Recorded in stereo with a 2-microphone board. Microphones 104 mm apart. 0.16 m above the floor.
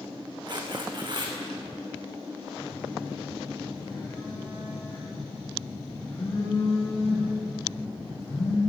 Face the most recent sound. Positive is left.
turn(degrees=75)  # may be behind; listen again after turning